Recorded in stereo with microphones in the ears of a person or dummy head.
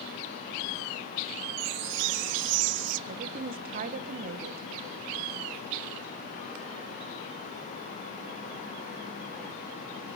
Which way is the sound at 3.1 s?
40° right (ahead or behind).